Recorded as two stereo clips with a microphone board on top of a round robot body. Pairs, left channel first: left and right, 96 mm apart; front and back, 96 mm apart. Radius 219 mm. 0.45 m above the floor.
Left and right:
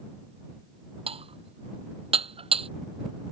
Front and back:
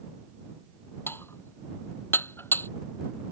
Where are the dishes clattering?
70° right.